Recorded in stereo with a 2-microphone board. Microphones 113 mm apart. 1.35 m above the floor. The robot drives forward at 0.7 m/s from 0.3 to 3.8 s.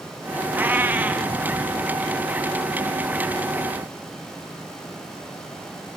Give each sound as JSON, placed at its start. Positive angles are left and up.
{"t": 0.5, "sound": "a cat meowing", "side_deg": -20, "distance_m": 0.7}